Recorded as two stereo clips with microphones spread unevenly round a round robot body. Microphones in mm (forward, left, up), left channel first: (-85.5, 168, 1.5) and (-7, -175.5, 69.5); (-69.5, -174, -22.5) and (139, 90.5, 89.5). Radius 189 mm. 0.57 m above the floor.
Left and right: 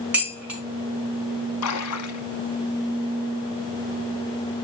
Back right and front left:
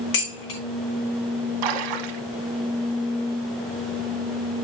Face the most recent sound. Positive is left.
turn(degrees=50)